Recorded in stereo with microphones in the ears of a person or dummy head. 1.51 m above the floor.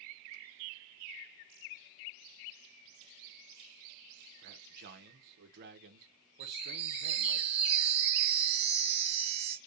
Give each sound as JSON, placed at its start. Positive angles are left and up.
{"t": 4.4, "sound": "a man speaking", "side_deg": -50, "distance_m": 0.8}
{"t": 6.4, "sound": "a chime", "side_deg": -35, "distance_m": 0.9}